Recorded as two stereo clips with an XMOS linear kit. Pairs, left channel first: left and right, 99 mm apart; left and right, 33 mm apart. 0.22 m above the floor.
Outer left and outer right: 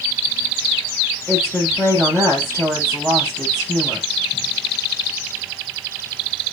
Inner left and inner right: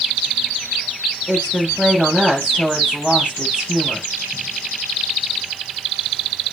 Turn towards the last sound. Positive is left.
turn(degrees=-25)  # may be behind; listen again after turning